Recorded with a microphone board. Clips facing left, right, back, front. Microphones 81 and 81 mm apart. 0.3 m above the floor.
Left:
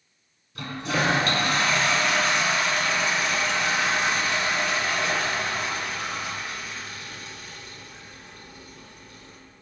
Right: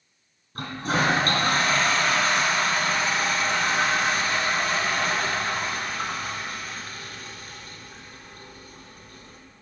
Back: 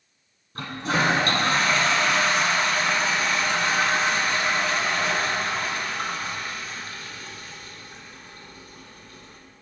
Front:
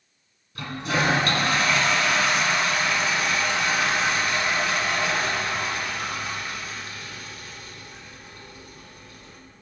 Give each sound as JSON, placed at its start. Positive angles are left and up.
{"t": 0.6, "sound": "a toilet flushing", "azimuth_deg": -130, "distance_m": 2.0}